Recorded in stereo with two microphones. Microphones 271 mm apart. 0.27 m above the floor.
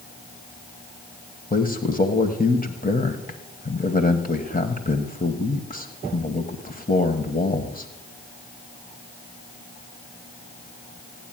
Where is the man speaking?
30° left (ahead or behind), 1.1 m.